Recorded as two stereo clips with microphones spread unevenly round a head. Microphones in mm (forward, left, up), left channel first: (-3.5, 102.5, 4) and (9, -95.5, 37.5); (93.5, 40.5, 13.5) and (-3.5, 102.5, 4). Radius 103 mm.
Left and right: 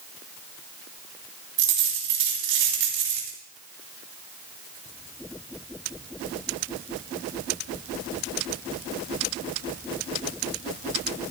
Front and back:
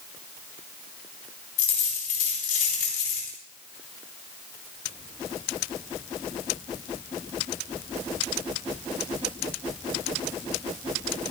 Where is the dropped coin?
55° right, 4 m.